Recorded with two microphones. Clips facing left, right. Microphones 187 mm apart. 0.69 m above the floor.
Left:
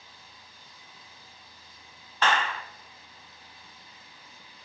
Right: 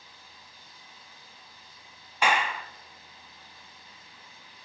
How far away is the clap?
About 0.7 m.